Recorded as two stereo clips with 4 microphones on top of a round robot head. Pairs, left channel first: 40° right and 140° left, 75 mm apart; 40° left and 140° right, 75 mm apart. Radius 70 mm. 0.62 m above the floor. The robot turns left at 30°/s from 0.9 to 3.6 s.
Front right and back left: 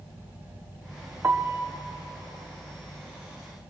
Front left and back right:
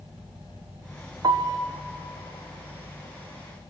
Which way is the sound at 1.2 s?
165° right.